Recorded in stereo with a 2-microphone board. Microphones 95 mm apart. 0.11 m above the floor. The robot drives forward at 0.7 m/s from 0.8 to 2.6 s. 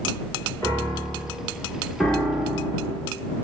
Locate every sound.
0.6 s a piano: 30° left (ahead or behind), 1.9 m
2.0 s a piano: 10° left (ahead or behind), 0.6 m; by 3.0 s 5° left (ahead or behind), 0.9 m